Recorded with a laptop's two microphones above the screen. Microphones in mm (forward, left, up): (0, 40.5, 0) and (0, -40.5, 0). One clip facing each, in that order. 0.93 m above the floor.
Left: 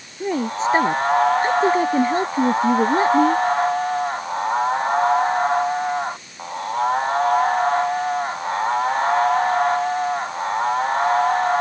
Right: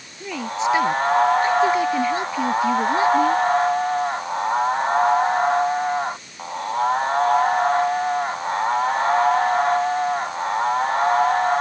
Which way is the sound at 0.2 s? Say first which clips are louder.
Left 3 dB; 40° left (ahead or behind).